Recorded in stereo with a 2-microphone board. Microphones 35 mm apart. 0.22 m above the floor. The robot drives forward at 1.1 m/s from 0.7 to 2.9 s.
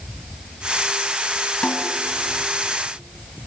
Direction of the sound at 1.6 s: 40° left (ahead or behind).